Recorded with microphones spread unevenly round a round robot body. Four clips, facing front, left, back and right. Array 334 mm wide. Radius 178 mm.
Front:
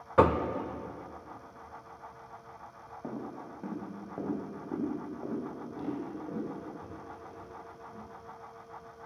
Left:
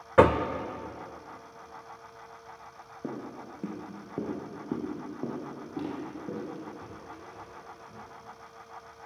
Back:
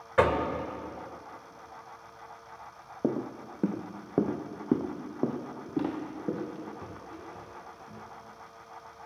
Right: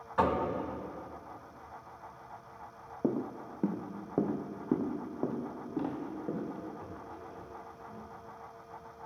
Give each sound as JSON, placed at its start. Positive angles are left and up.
{"t": 0.2, "sound": "knocking", "azimuth_deg": 70, "distance_m": 0.9}
{"t": 3.0, "sound": "footsteps", "azimuth_deg": -145, "distance_m": 1.1}